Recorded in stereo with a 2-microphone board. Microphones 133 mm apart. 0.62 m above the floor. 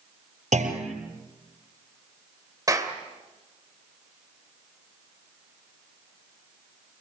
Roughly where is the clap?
Right.